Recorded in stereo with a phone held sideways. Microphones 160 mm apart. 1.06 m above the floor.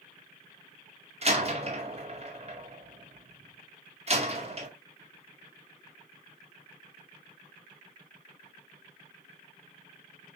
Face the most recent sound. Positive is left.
turn(degrees=-40)  # may be behind; listen again after turning